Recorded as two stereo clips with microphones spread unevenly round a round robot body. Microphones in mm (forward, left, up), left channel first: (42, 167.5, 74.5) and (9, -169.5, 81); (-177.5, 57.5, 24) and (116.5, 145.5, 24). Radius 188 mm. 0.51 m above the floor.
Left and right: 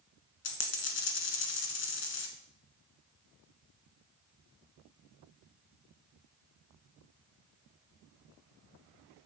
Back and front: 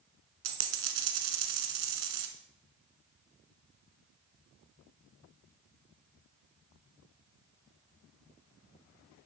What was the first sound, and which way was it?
A dropped coin, 30° left.